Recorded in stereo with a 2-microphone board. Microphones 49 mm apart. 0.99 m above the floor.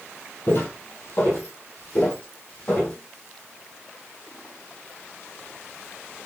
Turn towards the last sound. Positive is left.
turn(degrees=25)  # may be behind; listen again after turning